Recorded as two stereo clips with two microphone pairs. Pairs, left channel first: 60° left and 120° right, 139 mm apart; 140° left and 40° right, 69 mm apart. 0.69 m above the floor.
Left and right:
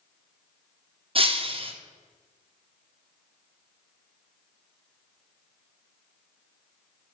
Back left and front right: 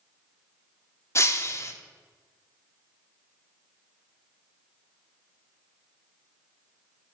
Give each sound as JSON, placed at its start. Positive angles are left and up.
{"t": 1.1, "sound": "breaking glass", "azimuth_deg": -175, "distance_m": 0.6}